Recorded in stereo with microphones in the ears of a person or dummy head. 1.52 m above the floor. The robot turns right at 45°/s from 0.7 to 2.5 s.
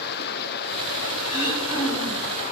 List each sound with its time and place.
0.0 s running water: 55° left, 0.7 m; by 2.5 s 135° left, 0.7 m
1.3 s throat clearing: 25° left, 4.5 m; by 2.3 s 75° left, 4.5 m